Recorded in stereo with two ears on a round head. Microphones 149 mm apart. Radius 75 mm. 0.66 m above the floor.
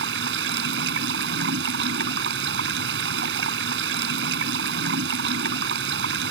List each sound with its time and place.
0.0 s running water: 75° right (ahead or behind)